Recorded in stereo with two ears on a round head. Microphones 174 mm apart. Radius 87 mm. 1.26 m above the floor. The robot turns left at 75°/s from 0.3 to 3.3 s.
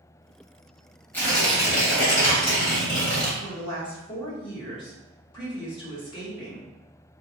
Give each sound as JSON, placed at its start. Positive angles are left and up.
{"t": 1.1, "sound": "tearing paper", "azimuth_deg": 165, "distance_m": 1.4}
{"t": 3.4, "sound": "a woman speaking", "side_deg": 25, "distance_m": 1.7}